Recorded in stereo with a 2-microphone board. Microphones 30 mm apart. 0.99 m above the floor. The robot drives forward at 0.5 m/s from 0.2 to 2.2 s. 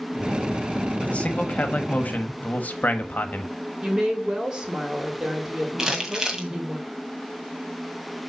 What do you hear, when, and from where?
1.0 s a man speaking: 45° left (ahead or behind), 1.6 m; by 3.5 s 60° left (ahead or behind), 1.3 m
3.8 s a woman speaking: 20° right (ahead or behind), 2.5 m
5.8 s crumpling: 25° right (ahead or behind), 1.7 m